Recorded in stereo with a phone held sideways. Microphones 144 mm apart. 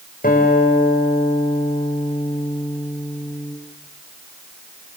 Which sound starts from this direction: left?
A guitar, at 0.2 s.